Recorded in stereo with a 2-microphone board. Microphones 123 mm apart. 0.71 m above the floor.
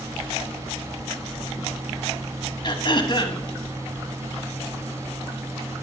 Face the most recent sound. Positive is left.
turn(degrees=40)  # may be behind; listen again after turning